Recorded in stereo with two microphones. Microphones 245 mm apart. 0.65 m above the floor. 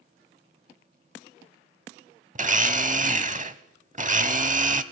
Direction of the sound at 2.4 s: 30° right (ahead or behind).